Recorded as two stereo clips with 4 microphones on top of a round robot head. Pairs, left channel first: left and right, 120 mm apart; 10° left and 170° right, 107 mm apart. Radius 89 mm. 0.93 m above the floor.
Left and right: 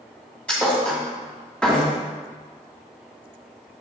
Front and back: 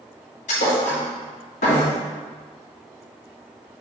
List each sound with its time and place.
0.5 s a thud: 10° left, 2 m